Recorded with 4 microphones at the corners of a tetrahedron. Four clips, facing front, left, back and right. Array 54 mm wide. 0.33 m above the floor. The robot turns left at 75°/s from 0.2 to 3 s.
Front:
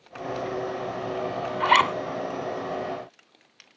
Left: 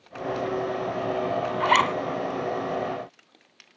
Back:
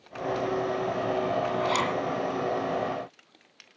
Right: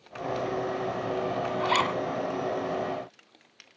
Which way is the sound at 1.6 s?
45° left.